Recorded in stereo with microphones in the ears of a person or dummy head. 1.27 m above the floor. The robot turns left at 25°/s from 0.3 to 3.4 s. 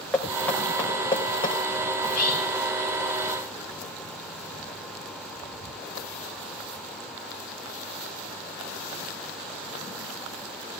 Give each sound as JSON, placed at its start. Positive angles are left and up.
{"t": 0.1, "sound": "knocking", "side_deg": 5, "distance_m": 4.0}
{"t": 2.0, "sound": "whispering", "side_deg": 80, "distance_m": 2.5}